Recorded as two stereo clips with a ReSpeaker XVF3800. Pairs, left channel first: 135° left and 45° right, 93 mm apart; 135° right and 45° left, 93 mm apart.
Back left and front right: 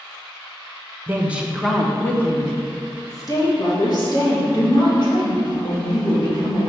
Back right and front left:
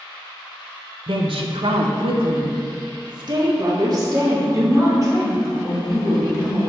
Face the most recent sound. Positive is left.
turn(degrees=105)